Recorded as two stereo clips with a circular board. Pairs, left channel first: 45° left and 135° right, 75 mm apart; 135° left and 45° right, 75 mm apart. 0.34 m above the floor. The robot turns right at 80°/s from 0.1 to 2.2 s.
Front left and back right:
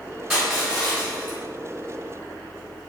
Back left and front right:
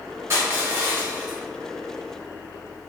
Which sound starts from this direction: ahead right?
Crushing, at 0.3 s.